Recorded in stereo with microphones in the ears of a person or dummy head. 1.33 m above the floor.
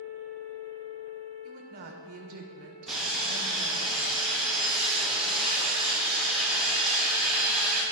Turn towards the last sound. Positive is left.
turn(degrees=0)  # may be behind; listen again after turning